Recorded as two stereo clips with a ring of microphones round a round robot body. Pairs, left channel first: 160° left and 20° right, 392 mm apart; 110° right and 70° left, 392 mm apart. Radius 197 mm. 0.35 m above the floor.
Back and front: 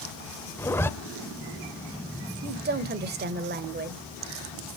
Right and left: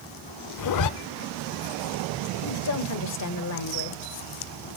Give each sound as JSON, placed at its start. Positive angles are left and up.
{"t": 0.6, "sound": "a zipper", "azimuth_deg": -120, "distance_m": 0.7}
{"t": 2.4, "sound": "a woman speaking", "azimuth_deg": -80, "distance_m": 1.4}